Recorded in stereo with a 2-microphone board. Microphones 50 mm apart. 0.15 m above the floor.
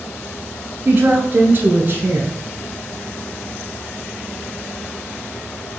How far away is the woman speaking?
About 1.4 m.